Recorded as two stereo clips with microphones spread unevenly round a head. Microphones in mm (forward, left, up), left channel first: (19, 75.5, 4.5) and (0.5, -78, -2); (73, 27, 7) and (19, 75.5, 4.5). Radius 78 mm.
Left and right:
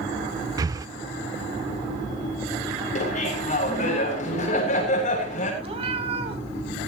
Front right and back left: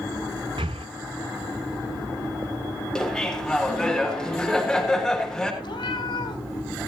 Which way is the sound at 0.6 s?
165° right.